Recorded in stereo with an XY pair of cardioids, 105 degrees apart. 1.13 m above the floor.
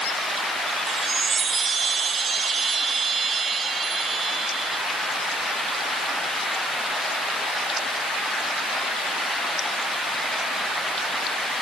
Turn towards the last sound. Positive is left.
turn(degrees=-40)